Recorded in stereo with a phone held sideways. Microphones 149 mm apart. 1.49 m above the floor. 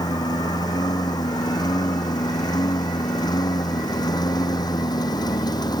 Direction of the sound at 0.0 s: 25° left (ahead or behind).